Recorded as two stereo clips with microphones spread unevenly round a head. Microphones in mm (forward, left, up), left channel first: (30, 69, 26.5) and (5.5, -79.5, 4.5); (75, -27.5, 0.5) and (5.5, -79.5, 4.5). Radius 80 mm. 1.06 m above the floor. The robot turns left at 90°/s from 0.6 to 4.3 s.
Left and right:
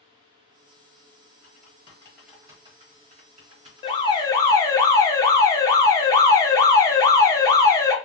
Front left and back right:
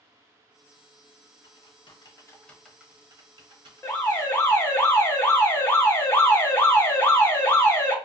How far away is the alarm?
About 0.6 m.